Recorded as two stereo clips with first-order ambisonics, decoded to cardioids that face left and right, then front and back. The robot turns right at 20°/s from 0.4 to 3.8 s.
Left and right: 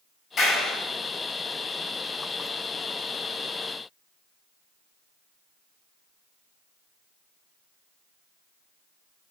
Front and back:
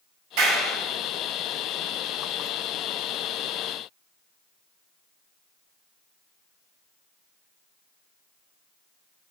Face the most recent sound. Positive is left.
turn(degrees=-135)